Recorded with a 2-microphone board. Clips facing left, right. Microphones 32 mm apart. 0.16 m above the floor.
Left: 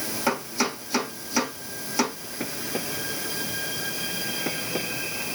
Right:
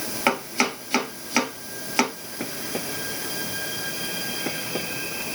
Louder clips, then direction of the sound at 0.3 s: Right 4 dB; 60° right (ahead or behind).